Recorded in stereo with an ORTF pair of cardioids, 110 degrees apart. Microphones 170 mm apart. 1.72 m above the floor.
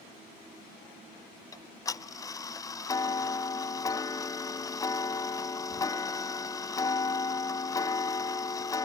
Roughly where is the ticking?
Ahead.